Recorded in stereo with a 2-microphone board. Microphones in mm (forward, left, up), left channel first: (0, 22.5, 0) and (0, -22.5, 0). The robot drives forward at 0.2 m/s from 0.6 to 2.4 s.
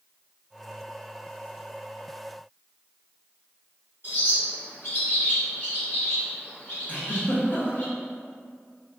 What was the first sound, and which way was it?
A bird, 50° left (ahead or behind).